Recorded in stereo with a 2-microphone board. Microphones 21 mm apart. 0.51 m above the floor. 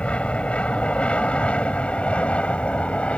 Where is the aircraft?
60° left (ahead or behind); by 3.2 s 65° left (ahead or behind).